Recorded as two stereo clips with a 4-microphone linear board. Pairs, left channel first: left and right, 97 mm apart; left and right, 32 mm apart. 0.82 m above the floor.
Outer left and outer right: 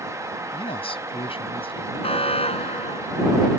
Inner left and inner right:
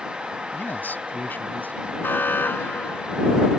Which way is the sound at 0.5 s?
70° left (ahead or behind).